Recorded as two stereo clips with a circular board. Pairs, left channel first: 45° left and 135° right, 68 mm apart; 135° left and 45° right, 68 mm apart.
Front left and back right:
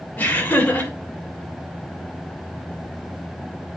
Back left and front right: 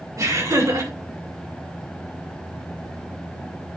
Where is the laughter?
20° right, 3 m.